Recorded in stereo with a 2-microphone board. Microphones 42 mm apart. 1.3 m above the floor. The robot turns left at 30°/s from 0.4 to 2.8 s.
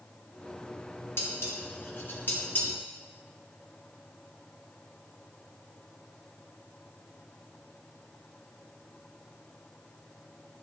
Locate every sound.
1.2 s dishes clattering: 75° left (ahead or behind), 1.9 m; by 2.7 s 45° left (ahead or behind), 1.9 m